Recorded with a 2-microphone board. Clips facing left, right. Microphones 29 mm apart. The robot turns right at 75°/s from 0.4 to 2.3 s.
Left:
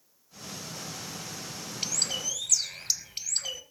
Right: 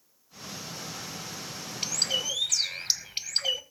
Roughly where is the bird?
Behind.